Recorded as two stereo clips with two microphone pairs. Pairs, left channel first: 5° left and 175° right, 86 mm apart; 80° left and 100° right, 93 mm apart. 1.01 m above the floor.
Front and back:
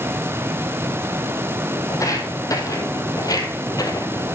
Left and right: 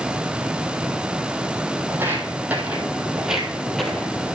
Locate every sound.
1.9 s footsteps: 40° right, 2 m; by 4.4 s 5° left, 1.4 m